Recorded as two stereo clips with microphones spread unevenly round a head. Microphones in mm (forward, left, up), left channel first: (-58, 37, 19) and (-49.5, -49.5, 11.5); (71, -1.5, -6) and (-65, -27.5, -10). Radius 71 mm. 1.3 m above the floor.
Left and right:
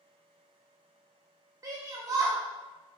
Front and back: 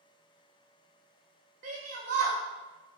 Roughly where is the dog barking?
No dog barking in this recording.